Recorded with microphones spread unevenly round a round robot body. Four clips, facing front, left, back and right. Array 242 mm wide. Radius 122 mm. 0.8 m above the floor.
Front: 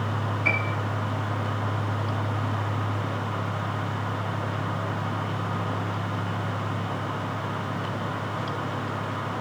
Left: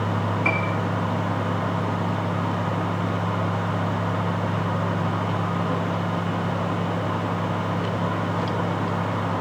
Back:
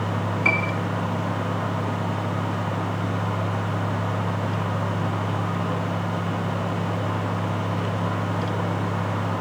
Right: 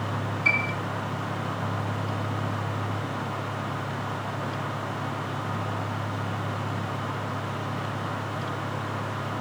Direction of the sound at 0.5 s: 140° left.